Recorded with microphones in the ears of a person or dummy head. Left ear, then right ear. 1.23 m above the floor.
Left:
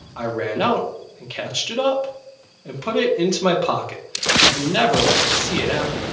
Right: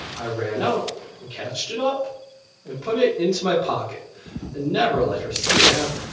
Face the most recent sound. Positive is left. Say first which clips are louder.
# left 4 dB
turn(degrees=55)  # may be behind; listen again after turning